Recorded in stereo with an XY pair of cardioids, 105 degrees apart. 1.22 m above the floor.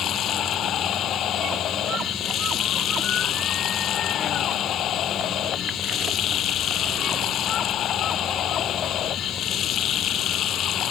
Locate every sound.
0.0 s running water: 65° left